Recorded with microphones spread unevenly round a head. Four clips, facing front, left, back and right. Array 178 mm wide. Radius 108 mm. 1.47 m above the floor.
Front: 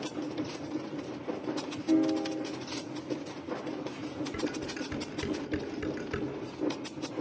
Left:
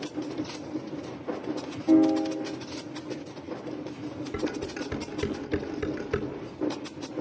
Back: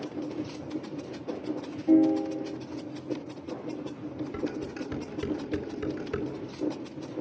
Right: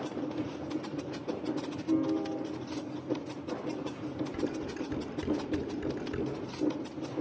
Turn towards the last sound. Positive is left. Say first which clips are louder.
# left 3 dB, back 3 dB
turn(degrees=90)